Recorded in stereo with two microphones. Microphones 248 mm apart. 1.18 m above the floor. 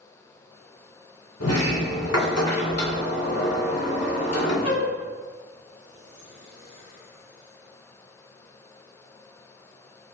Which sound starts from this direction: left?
A sliding door, at 1.4 s.